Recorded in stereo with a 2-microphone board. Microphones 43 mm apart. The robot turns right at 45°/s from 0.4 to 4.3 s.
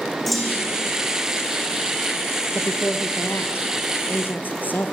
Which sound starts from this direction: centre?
A clunk, at 0.3 s.